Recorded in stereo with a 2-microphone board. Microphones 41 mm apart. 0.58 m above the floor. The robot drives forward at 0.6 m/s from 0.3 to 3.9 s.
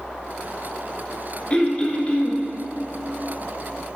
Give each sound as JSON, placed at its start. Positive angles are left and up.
{"t": 1.5, "sound": "throat clearing", "side_deg": 20, "distance_m": 1.2}